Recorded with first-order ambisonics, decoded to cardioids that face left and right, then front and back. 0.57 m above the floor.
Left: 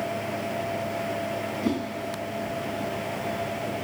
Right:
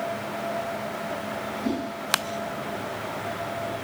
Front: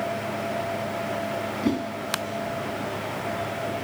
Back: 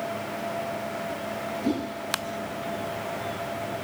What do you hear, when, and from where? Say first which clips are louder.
1.6 s a whoosh: left 1 dB, front 1 dB; 20° left, 2 m